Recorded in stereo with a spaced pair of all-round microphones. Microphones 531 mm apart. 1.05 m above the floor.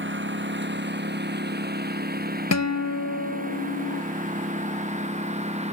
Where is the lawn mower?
20° right (ahead or behind); by 5.8 s 10° right (ahead or behind).